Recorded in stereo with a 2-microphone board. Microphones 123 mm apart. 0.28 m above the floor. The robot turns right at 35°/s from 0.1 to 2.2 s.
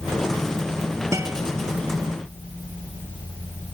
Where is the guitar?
25° right (ahead or behind); by 1.4 s 15° right (ahead or behind).